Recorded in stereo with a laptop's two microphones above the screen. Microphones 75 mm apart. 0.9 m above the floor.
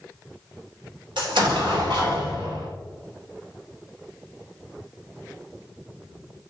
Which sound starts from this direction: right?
An explosion, at 1.2 s.